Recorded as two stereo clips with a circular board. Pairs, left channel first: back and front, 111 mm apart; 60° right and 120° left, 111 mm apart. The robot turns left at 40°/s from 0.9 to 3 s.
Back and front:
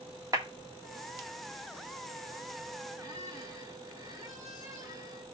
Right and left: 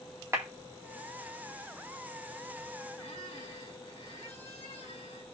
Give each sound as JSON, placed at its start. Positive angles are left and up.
{"t": 0.3, "sound": "a clap", "azimuth_deg": 55, "distance_m": 1.9}
{"t": 3.0, "sound": "a squeak", "azimuth_deg": -50, "distance_m": 2.5}